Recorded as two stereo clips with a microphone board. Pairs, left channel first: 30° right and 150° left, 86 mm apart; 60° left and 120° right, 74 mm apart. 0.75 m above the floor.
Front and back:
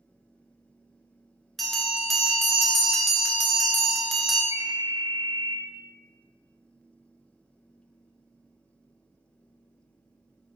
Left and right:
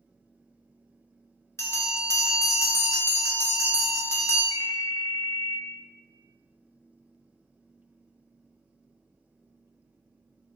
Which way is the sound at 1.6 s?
55° left.